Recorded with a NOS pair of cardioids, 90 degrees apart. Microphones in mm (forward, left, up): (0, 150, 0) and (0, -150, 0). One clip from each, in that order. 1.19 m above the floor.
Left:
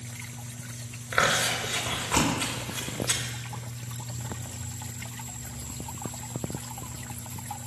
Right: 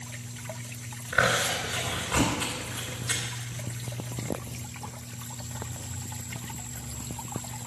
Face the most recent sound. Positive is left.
turn(degrees=40)